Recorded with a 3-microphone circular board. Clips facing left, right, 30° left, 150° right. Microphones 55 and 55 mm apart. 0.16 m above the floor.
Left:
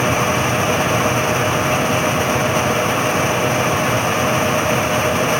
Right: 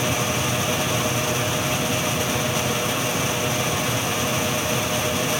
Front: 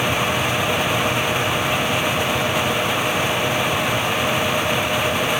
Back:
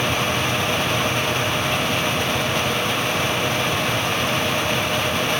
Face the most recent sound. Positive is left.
No sound to turn to.